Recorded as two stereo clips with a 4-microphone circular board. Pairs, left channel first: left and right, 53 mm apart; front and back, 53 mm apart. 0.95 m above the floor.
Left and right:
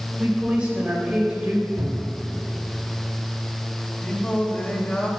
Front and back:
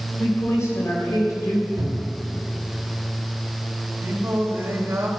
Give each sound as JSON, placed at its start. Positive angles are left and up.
{"t": 0.2, "sound": "a woman speaking", "azimuth_deg": -20, "distance_m": 3.5}
{"t": 1.8, "sound": "a cupboard door", "azimuth_deg": -150, "distance_m": 3.0}
{"t": 4.0, "sound": "singing", "azimuth_deg": 155, "distance_m": 1.8}